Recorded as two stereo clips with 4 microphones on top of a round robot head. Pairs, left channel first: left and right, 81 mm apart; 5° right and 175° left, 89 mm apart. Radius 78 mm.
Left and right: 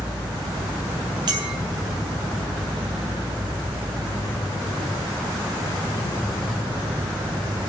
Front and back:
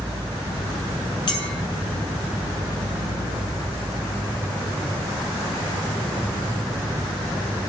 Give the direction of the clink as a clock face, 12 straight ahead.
2 o'clock.